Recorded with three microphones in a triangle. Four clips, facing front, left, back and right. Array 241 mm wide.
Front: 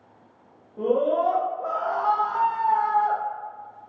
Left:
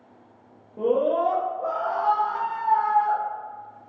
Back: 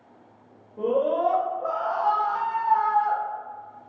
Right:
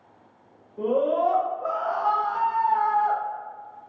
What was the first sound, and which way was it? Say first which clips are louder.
A scream: left 1 dB, front 1 dB; 75° left.